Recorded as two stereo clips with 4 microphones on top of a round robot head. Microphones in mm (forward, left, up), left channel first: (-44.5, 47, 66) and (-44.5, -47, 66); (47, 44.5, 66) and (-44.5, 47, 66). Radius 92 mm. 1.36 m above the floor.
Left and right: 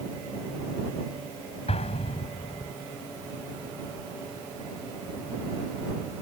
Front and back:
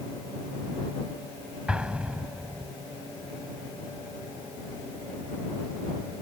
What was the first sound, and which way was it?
An explosion, 100° left.